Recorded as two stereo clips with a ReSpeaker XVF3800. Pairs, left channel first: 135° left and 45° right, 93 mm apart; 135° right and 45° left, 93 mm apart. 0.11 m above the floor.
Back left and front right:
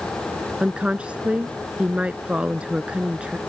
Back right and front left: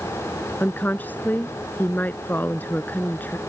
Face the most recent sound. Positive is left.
turn(degrees=-105)